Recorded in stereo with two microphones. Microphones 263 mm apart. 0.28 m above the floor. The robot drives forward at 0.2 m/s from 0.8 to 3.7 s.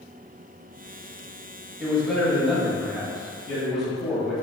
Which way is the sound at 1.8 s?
Centre (ahead or behind).